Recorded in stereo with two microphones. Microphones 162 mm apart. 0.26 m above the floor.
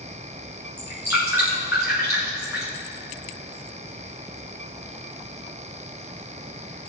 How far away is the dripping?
About 4.5 m.